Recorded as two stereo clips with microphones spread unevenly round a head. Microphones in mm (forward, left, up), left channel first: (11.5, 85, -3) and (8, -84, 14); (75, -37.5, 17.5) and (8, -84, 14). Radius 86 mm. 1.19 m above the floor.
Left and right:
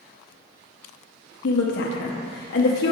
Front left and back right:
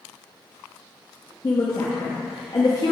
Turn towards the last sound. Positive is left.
turn(degrees=95)